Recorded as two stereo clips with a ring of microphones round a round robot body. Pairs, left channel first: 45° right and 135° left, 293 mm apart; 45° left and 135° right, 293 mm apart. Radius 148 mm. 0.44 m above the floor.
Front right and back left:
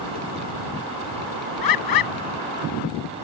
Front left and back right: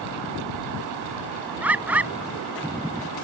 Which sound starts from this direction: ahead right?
A bird, at 1.6 s.